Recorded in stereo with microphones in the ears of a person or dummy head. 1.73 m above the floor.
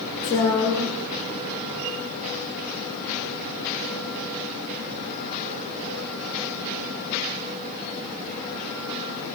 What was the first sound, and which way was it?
A woman speaking, 20° left (ahead or behind).